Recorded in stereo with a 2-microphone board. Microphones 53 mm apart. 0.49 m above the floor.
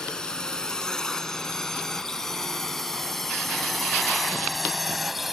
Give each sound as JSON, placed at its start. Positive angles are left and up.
{"t": 0.0, "sound": "a drone", "side_deg": 10}